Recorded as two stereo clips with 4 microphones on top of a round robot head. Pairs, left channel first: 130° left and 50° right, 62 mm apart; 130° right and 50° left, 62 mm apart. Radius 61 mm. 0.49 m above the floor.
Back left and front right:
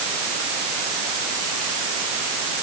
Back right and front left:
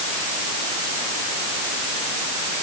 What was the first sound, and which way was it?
Only background noise.